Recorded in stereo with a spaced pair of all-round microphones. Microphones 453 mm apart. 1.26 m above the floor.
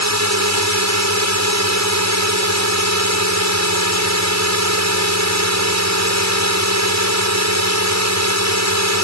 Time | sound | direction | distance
0.0 | a drone | 35° right (ahead or behind) | ?